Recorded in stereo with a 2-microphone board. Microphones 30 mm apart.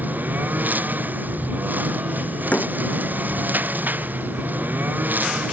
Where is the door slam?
60° left (ahead or behind).